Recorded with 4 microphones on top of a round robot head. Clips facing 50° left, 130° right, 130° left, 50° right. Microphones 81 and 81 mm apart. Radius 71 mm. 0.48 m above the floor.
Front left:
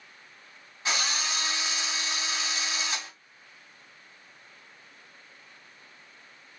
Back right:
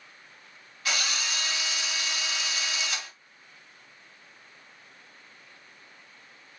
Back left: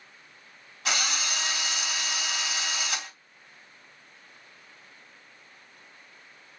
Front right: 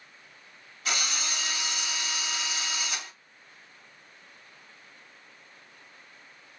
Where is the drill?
115° left, 2.5 m.